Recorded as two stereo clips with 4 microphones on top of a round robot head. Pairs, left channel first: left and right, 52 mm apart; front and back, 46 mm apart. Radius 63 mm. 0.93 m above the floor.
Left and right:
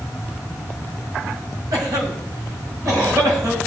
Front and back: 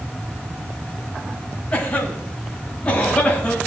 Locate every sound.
1.7 s a cough: 70° right, 5.5 m